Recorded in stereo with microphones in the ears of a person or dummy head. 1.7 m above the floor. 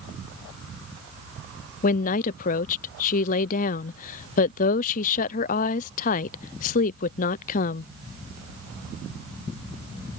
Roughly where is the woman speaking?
Left.